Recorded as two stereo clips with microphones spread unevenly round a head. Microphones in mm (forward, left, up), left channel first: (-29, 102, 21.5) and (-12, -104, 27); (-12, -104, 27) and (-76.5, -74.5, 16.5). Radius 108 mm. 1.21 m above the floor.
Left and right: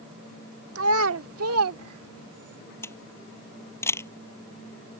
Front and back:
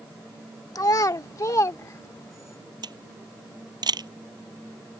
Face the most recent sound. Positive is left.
turn(degrees=175)